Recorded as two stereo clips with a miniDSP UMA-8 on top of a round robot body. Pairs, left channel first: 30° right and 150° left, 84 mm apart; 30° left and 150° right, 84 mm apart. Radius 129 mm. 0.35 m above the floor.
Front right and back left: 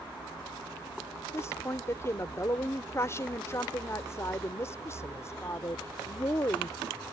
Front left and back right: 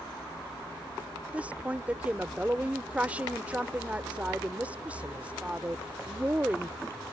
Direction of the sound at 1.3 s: 80° right.